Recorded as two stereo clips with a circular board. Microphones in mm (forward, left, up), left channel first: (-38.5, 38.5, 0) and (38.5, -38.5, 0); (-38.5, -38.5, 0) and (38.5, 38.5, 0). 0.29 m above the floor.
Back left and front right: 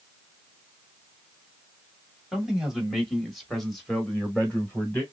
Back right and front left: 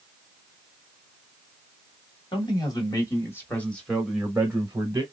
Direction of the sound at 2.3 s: 125° right.